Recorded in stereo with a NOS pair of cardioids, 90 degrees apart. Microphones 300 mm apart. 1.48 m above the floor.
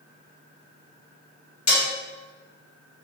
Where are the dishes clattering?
60° left, 1.6 m.